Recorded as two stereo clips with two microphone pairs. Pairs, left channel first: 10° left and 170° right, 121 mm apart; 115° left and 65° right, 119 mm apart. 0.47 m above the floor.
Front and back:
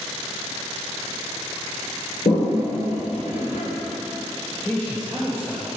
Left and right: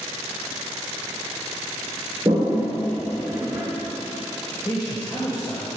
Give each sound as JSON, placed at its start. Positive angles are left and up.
{"t": 2.2, "sound": "a toilet flushing", "azimuth_deg": 5, "distance_m": 2.5}
{"t": 4.7, "sound": "a man speaking", "azimuth_deg": 75, "distance_m": 2.0}